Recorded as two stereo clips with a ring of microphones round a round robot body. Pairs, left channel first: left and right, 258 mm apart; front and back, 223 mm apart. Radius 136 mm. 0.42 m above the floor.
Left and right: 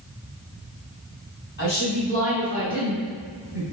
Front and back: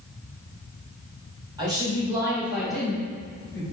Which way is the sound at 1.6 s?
115° left.